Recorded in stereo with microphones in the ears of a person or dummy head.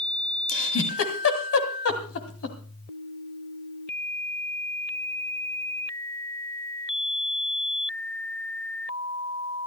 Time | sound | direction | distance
0.5 | a giggle | 80° left | 2.5 m